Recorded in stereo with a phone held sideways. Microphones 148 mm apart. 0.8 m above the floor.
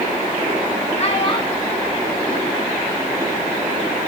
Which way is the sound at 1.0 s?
45° left (ahead or behind).